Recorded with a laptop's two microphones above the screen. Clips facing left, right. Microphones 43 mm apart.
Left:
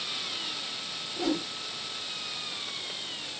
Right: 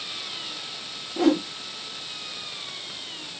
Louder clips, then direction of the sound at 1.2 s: Right 9 dB; 60° right (ahead or behind).